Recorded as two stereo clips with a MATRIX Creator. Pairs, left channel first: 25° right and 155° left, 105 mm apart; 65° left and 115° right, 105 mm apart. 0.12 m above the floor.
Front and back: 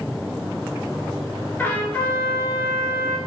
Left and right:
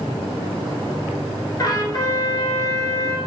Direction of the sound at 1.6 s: 40° left.